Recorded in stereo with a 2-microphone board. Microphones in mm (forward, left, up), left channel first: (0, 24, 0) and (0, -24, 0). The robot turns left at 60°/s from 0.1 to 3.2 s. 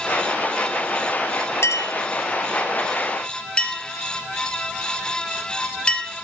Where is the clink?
60° left (ahead or behind), 3 m; by 6.1 s 20° left (ahead or behind), 3 m.